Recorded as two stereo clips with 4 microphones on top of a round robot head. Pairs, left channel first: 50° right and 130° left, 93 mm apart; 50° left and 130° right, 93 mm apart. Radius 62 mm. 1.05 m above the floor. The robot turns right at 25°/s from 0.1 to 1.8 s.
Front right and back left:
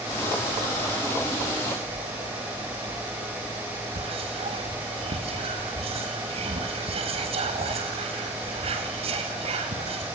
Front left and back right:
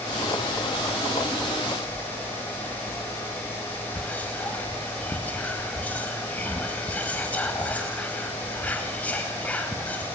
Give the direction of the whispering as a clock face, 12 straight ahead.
8 o'clock.